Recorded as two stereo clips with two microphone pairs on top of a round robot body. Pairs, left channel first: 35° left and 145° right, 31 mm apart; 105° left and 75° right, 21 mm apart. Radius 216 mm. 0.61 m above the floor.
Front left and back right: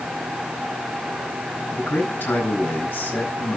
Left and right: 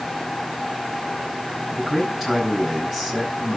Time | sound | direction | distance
1.7 | a man speaking | 20° left | 6.5 m